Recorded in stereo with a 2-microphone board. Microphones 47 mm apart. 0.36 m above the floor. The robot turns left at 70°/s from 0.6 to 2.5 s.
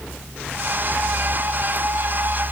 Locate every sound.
Only background noise.